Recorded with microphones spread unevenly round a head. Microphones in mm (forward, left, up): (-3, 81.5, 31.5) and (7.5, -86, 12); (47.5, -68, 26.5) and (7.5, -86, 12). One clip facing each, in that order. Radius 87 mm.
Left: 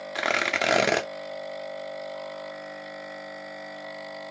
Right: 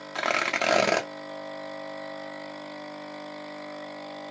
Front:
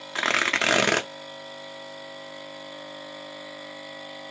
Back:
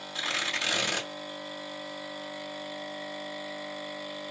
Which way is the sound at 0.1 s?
15° left.